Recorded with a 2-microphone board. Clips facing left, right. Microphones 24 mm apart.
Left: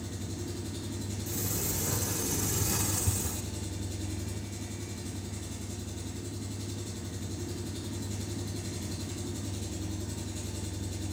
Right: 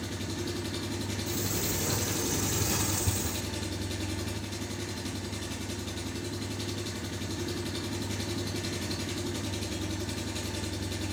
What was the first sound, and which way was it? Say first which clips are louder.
An engine running: right 4 dB; 80° right.